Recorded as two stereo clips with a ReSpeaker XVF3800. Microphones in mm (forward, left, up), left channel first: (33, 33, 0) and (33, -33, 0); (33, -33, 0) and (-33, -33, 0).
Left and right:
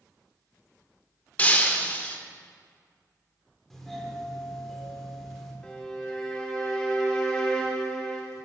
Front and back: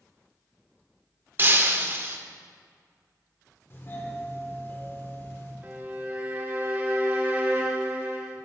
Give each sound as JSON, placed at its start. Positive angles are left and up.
{"t": 1.4, "sound": "breaking glass", "azimuth_deg": 145, "distance_m": 0.7}
{"t": 3.7, "sound": "a doorbell", "azimuth_deg": 10, "distance_m": 1.3}
{"t": 5.6, "sound": "a violin", "azimuth_deg": 160, "distance_m": 1.1}